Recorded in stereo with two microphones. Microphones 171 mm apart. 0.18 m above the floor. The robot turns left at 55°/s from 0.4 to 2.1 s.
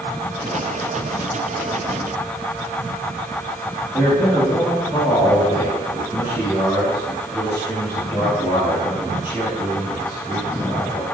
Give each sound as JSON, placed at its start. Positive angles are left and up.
{"t": 3.9, "sound": "a man speaking", "side_deg": 20, "distance_m": 2.5}